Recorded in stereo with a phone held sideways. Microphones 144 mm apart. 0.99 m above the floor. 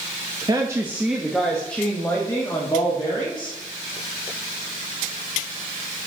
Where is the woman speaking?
25° right (ahead or behind), 0.8 m; by 3.6 s 30° left (ahead or behind), 1.9 m.